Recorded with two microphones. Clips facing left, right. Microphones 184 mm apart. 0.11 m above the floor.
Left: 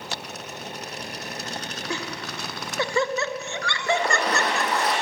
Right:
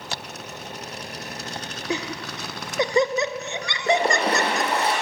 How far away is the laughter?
About 1.1 m.